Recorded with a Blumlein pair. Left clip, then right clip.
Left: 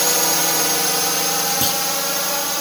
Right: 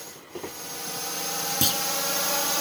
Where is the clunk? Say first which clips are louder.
Left 4 dB; 5° left.